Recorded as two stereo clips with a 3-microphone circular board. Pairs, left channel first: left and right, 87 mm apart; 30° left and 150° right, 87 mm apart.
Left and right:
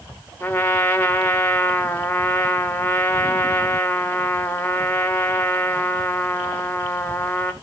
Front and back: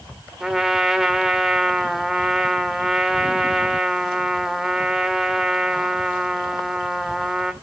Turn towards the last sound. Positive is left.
turn(degrees=125)